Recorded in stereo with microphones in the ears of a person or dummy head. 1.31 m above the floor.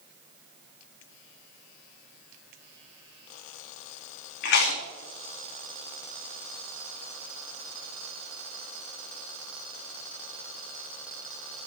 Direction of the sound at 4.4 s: 55° left (ahead or behind).